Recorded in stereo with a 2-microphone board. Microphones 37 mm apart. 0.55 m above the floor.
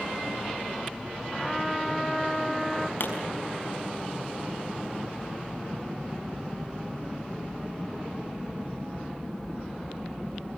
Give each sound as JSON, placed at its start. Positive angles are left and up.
{"t": 1.3, "sound": "a trumpet", "side_deg": 0, "distance_m": 1.1}
{"t": 3.0, "sound": "a pop", "side_deg": 70, "distance_m": 5.0}